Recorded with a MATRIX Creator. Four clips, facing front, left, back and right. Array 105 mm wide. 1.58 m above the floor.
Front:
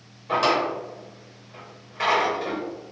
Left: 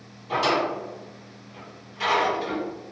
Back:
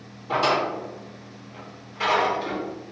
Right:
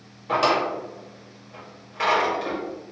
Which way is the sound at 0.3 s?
70° right.